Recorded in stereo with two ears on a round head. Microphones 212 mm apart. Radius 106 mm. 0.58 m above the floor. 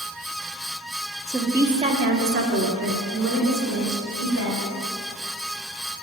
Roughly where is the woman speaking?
Centre.